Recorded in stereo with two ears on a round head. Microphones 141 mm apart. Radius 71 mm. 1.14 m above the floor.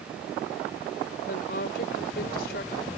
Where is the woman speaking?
60° left (ahead or behind).